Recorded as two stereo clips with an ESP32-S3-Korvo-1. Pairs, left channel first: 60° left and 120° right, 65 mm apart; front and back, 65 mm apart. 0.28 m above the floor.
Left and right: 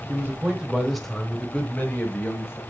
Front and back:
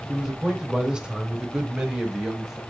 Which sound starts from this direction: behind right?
A man speaking, at 0.1 s.